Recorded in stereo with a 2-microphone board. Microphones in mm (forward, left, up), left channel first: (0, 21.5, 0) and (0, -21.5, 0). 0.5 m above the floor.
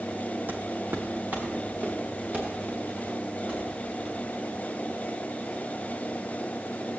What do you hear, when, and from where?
0.5 s footsteps: 50° right (ahead or behind), 1.1 m; by 4.2 s 35° right (ahead or behind), 6 m